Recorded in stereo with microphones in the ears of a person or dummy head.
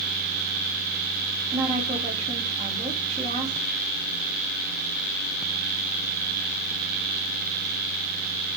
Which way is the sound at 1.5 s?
30° right (ahead or behind).